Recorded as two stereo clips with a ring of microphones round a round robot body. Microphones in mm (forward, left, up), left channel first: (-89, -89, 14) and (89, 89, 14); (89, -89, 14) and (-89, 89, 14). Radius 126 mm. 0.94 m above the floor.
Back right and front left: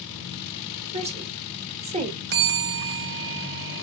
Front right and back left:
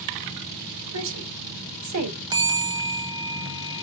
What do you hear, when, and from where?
0.9 s a woman speaking: 110° left, 2.5 m
2.3 s a bell: 70° left, 0.9 m